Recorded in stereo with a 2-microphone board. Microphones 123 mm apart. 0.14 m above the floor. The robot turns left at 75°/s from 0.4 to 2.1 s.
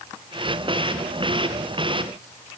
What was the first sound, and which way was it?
Only background noise.